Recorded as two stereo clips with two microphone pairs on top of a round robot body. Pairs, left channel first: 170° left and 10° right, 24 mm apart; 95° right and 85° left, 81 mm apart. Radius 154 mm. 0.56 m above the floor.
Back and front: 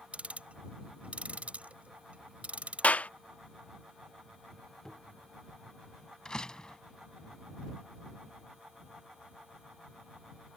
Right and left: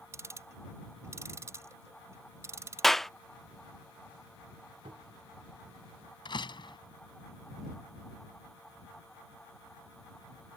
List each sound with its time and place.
0.1 s ticking: 25° left
2.8 s a clap: 175° left
4.8 s a cupboard door: 100° left
6.2 s a door slam: 125° right